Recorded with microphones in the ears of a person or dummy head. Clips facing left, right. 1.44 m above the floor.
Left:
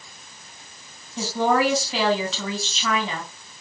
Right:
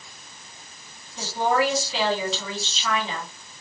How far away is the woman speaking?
About 2.5 m.